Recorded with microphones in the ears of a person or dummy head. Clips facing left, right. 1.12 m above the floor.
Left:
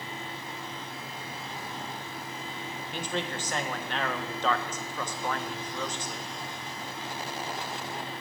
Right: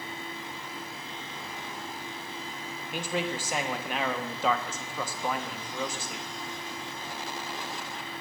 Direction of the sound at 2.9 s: 5° right (ahead or behind).